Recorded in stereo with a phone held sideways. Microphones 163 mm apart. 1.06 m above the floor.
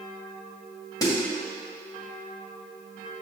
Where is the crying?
I don't hear crying.